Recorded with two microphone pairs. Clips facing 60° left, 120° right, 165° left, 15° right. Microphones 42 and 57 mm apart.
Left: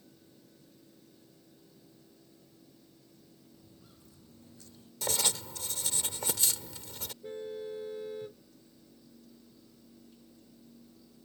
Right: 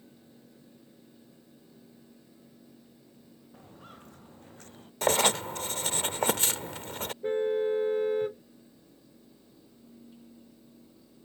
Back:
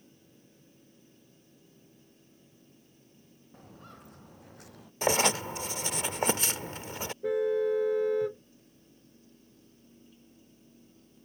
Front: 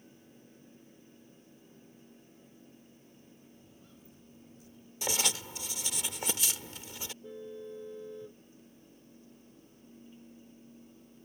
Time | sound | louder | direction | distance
3.5 | footsteps | right 8 dB, back 6 dB | 160° right | ?
5.0 | writing | right 10 dB, back 9 dB | 155° right | ?
7.2 | a car horn | right 13 dB, back 19 dB | 170° right | ?